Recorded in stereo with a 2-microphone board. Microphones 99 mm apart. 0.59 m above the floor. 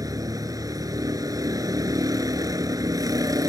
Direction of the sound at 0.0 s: 40° right (ahead or behind).